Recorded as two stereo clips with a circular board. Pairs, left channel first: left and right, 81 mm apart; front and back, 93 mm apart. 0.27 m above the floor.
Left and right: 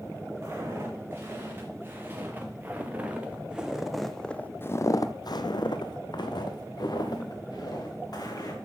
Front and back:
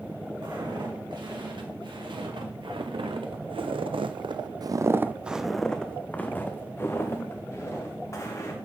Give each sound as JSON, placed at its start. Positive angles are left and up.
{"t": 0.4, "sound": "footsteps", "azimuth_deg": -145, "distance_m": 2.5}